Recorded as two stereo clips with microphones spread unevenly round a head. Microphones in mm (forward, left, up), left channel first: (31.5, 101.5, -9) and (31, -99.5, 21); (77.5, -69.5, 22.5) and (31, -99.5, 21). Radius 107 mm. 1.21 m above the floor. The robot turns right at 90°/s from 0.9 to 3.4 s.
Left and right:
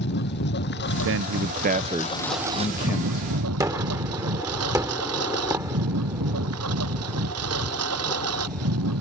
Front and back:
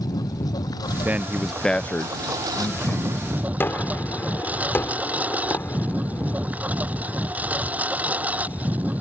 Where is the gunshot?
20° right.